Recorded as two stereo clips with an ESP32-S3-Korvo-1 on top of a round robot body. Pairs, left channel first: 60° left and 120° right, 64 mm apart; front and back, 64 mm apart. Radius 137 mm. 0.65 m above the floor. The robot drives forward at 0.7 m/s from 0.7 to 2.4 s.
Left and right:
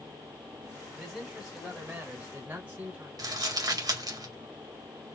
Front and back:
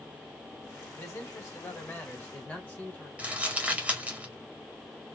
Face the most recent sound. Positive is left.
turn(degrees=-110)